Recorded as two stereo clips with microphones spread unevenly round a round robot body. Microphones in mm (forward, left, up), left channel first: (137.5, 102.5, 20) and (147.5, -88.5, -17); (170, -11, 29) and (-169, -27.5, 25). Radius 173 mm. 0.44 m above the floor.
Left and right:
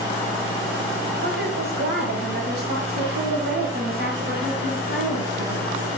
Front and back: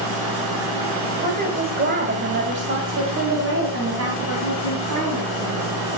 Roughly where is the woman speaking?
Right.